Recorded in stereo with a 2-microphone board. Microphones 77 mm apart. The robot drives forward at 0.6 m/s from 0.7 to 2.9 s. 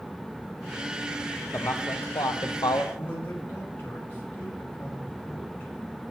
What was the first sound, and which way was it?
A man speaking, 45° left (ahead or behind).